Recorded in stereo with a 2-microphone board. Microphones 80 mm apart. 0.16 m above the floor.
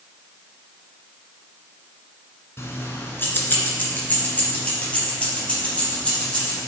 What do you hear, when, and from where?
2.6 s keys jangling: 35° left (ahead or behind), 1.3 m; by 6.6 s 15° left (ahead or behind), 4.5 m